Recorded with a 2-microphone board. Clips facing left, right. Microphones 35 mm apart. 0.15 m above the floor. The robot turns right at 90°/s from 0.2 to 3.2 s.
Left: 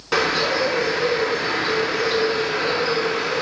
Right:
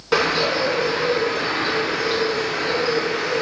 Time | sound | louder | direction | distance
0.1 | a bird | right 1 dB | 5° right (ahead or behind) | 1.4 m